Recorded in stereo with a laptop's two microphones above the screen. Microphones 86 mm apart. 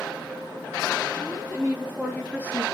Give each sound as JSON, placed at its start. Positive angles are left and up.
{"t": 1.1, "sound": "a woman speaking", "side_deg": 20, "distance_m": 1.8}